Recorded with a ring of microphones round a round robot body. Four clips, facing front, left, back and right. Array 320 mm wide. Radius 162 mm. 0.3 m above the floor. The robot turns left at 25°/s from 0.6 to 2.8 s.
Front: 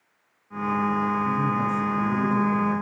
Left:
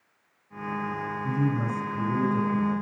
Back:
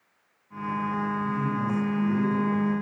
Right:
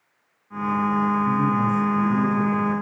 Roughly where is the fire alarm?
No fire alarm in this recording.